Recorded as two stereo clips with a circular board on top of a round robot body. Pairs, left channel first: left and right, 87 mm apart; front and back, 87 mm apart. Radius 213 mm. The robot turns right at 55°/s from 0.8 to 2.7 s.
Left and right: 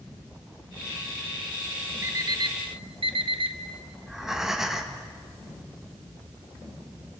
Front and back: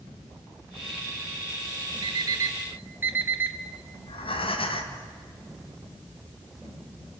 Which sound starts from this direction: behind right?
An alarm clock, at 2.0 s.